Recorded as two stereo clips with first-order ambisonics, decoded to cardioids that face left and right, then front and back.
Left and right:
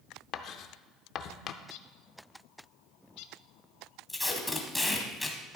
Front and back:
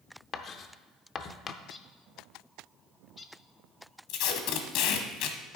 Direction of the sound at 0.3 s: 55° left.